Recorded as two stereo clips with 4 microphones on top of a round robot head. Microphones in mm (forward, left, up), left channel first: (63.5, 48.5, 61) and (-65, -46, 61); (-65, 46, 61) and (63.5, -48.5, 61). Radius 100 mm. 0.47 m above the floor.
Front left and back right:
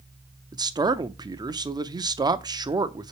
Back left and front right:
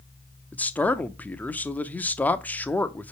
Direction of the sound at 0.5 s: 150° right.